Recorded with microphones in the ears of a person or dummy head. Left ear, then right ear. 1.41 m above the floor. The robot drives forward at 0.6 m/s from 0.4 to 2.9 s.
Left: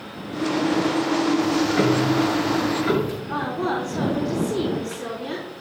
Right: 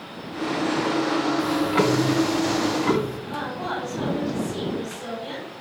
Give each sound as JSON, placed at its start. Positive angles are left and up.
{"t": 1.4, "sound": "ticking", "side_deg": -50, "distance_m": 0.7}
{"t": 3.3, "sound": "a woman speaking", "side_deg": 40, "distance_m": 4.0}